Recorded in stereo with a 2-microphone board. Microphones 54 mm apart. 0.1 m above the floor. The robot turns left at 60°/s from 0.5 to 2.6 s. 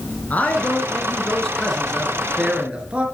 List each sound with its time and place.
0.3 s a man speaking: 85° left, 1.3 m; by 3.1 s 40° right, 1.3 m